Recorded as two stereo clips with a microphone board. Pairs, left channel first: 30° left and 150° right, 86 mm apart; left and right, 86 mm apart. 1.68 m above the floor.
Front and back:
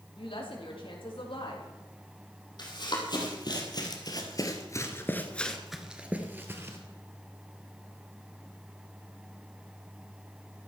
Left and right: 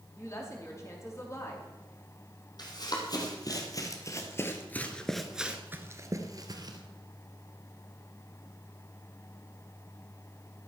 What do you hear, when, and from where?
0.2 s a woman speaking: 35° left, 4.5 m
2.6 s running footsteps: 60° left, 4.5 m; by 6.8 s 100° right, 2.5 m